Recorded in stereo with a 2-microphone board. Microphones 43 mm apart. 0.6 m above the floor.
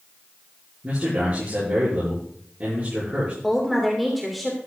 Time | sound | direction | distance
0.8 | a man speaking | 35° right (ahead or behind) | 7.5 m
3.4 | a woman speaking | centre (ahead or behind) | 2.5 m